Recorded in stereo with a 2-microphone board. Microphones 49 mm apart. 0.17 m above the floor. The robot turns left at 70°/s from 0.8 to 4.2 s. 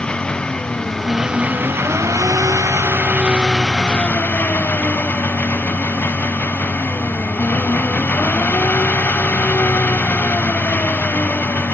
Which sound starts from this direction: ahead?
An engine running, at 0.0 s.